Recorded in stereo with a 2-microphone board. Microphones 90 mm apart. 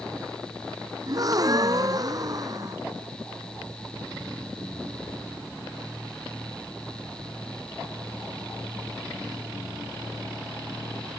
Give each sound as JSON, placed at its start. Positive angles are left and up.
{"t": 1.1, "sound": "a gasp", "side_deg": -45}